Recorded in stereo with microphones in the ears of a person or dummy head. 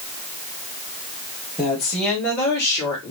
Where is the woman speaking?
Centre (ahead or behind), 2 m; by 3.1 s 20° left (ahead or behind), 3 m.